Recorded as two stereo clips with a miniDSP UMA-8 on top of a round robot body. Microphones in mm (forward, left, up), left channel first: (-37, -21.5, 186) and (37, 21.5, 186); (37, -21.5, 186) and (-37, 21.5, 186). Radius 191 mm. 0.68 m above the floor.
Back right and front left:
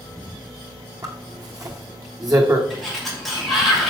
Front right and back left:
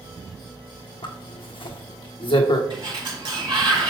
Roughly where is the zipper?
Ahead.